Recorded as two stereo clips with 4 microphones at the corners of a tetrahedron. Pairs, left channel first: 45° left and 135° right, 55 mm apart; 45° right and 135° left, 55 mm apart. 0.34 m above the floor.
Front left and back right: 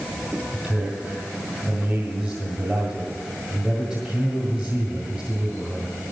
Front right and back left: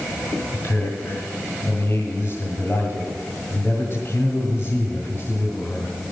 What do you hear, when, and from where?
0.5 s a man speaking: 75° right, 1.8 m